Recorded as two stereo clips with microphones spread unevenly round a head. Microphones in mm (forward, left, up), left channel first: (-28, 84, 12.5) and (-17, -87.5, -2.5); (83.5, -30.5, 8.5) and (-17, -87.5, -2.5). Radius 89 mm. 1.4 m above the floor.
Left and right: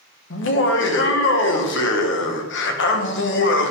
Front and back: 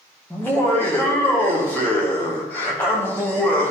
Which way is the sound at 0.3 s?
110° left.